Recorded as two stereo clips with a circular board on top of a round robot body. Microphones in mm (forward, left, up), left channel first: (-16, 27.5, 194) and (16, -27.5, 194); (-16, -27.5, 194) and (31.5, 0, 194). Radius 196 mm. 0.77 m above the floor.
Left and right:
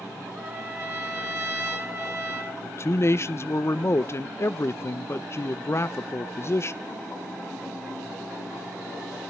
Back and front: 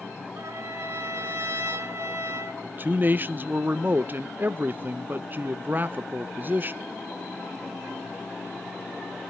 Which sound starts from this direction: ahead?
A trumpet, at 0.4 s.